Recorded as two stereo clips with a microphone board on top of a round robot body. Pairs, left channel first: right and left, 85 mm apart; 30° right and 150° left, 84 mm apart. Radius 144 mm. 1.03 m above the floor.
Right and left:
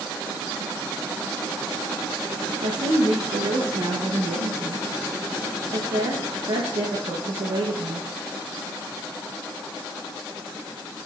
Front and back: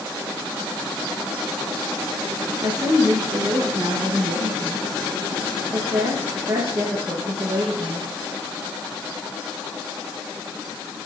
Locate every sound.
2.6 s a woman speaking: 100° left, 1.0 m